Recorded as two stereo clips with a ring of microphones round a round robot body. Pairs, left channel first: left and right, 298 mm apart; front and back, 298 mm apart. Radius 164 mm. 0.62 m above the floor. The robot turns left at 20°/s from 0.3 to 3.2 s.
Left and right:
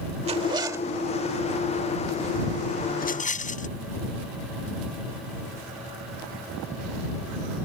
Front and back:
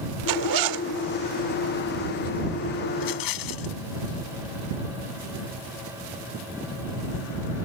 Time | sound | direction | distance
0.3 | a zipper | 165° right | ?
2.9 | a rattle | 30° left | ?